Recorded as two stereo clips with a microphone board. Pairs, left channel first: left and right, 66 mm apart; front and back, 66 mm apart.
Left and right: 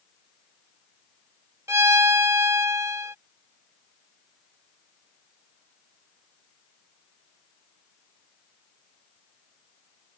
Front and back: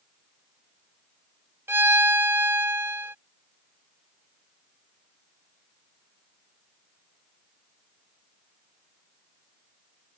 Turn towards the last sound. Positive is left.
turn(degrees=-130)